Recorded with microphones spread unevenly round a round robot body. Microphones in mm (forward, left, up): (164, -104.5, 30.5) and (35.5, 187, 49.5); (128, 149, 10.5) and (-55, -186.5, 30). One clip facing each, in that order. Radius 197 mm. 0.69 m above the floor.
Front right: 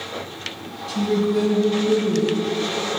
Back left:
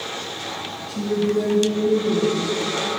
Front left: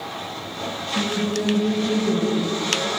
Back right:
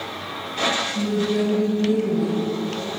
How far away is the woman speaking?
About 3 m.